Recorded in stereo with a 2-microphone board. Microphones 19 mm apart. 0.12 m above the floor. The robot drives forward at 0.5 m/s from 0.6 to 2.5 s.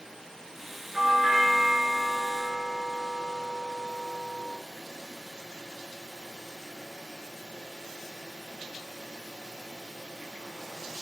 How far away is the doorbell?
About 2.0 m.